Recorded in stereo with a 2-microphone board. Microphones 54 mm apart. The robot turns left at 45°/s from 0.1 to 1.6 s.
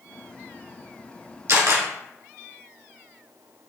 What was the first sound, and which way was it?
A camera shutter, 55° right (ahead or behind).